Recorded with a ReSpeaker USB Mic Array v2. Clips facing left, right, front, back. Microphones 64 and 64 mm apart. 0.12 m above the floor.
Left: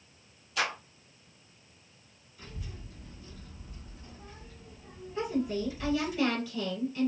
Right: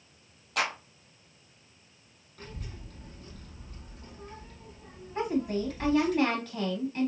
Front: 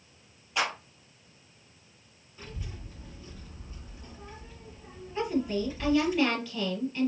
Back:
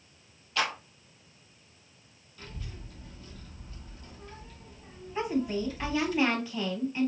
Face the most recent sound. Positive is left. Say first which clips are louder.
# right 2 dB, front 1 dB
turn(degrees=-110)